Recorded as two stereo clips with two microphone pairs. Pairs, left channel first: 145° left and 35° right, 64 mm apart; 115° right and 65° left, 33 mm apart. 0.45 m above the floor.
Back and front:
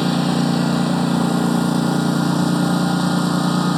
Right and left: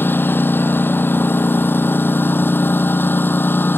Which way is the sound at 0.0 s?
125° right.